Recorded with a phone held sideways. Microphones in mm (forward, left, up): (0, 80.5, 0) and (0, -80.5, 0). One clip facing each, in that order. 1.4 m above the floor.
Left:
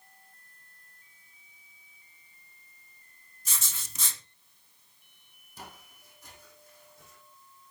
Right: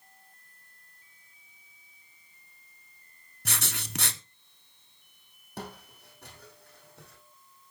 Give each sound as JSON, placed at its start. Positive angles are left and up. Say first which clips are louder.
{"t": 3.5, "sound": "writing", "louder": "right 7 dB", "side_deg": -70, "distance_m": 0.9}
{"t": 5.6, "sound": "footsteps", "louder": "right 7 dB", "side_deg": -70, "distance_m": 3.5}